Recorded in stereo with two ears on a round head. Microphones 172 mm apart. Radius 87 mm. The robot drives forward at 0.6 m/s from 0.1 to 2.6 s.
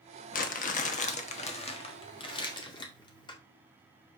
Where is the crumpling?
45° left (ahead or behind), 1.1 m; by 3.4 s 25° left (ahead or behind), 1.8 m.